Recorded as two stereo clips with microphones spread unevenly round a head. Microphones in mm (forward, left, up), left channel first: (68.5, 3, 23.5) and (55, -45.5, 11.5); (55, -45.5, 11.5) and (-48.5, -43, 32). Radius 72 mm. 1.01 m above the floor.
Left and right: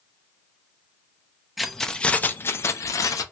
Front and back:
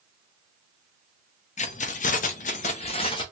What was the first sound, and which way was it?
Keys jangling, 15° right.